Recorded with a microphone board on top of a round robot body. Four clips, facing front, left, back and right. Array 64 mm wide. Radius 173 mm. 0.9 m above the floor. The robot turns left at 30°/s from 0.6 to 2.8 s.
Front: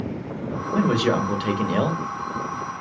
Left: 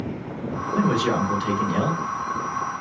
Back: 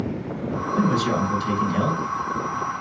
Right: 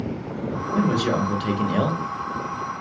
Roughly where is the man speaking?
Ahead.